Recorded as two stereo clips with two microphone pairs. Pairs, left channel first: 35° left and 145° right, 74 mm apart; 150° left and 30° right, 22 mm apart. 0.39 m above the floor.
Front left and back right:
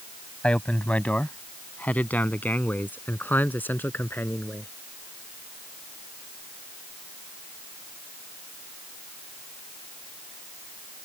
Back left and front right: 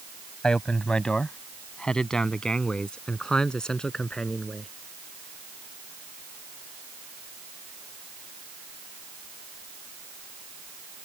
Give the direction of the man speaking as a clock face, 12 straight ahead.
8 o'clock.